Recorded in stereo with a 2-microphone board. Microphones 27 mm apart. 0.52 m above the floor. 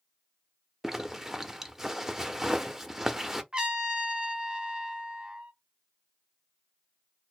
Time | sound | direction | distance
0.8 | a zipper | 10° right (ahead or behind) | 0.8 m
3.5 | a trumpet | 30° right (ahead or behind) | 1.1 m